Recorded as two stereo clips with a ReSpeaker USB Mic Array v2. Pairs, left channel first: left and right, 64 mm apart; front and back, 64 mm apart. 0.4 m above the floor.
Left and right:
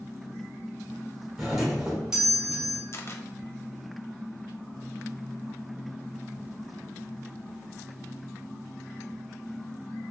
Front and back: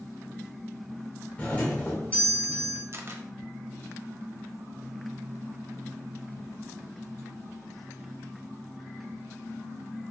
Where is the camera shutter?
135° left, 0.6 m.